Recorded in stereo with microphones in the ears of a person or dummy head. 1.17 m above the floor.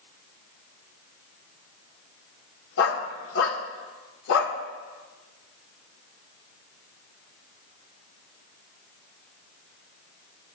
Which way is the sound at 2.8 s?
60° left (ahead or behind).